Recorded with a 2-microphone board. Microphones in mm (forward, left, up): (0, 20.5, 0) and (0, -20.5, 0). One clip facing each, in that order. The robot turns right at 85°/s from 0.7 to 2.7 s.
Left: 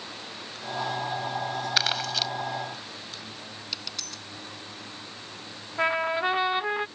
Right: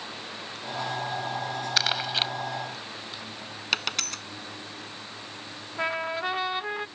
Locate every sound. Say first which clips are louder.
1.8 s crumpling: right 1 dB; 5° left (ahead or behind); by 2.3 s 45° right (ahead or behind)
3.7 s a dropped coin: right 12 dB; 60° right (ahead or behind)
5.8 s a trumpet: left 4 dB; 15° left (ahead or behind)